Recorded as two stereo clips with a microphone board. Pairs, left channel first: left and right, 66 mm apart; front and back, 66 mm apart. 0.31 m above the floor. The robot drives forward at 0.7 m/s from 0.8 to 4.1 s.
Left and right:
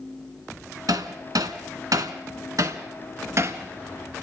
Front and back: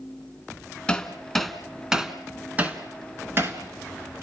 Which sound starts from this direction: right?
Hammering, at 0.9 s.